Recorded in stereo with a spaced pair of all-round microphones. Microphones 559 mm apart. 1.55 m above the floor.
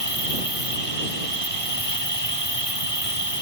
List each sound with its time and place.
0.0 s an insect: 70° left (ahead or behind)